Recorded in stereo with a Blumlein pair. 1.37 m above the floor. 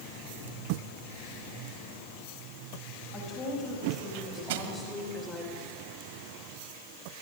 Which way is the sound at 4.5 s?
50° right.